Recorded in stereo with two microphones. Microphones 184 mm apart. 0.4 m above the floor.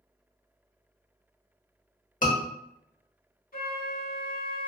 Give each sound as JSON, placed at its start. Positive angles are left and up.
{"t": 2.2, "sound": "a scream", "side_deg": 45, "distance_m": 1.1}
{"t": 3.5, "sound": "a flute", "side_deg": 55, "distance_m": 0.8}